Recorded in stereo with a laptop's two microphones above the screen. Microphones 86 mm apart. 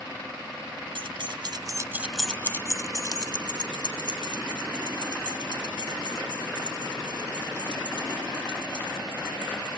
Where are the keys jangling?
75° right (ahead or behind), 1.0 m; by 9.8 s 70° left (ahead or behind), 6.5 m.